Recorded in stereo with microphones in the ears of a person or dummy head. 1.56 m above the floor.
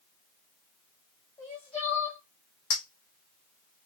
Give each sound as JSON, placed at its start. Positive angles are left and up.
{"t": 1.4, "sound": "crying", "side_deg": 20, "distance_m": 1.2}
{"t": 2.7, "sound": "a clink", "side_deg": 50, "distance_m": 1.2}